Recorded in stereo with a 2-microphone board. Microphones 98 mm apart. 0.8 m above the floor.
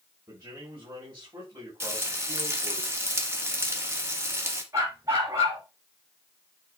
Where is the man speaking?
40° right (ahead or behind), 5 m.